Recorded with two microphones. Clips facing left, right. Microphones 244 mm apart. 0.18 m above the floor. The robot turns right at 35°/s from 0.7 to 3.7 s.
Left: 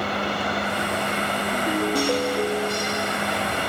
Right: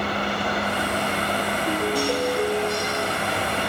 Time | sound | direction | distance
1.5 | a ringtone | 5° left | 9 m